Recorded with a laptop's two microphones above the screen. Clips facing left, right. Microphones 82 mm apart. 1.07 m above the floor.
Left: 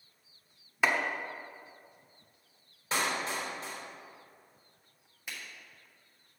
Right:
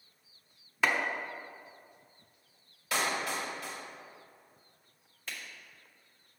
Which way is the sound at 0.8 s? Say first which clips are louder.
Left 1 dB; 10° left (ahead or behind).